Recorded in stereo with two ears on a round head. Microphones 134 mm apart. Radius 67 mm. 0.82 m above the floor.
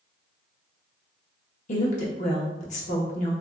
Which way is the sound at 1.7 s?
50° left (ahead or behind).